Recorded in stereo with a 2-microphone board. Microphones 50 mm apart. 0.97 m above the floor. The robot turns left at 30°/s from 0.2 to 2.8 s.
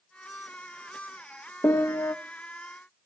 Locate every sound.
1.6 s a piano: 70° left (ahead or behind), 0.7 m; by 2.1 s 80° left, 0.7 m